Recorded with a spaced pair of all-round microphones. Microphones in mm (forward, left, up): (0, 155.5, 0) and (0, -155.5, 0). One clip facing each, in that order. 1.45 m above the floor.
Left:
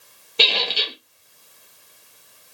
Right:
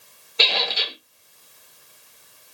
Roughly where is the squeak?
Left.